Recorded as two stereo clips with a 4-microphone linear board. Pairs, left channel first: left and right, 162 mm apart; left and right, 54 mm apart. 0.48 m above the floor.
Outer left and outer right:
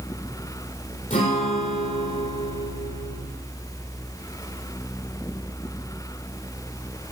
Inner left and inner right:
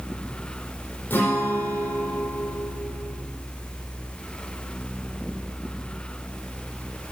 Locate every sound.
1.1 s a guitar: 45° left (ahead or behind), 6 m